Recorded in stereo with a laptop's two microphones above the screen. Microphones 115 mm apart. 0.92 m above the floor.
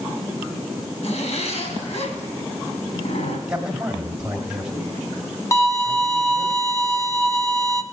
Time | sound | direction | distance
1.0 | a zipper | 75° left (ahead or behind) | 2.5 m
3.5 | a man speaking | 10° right (ahead or behind) | 1.8 m
5.5 | a violin | 25° left (ahead or behind) | 0.6 m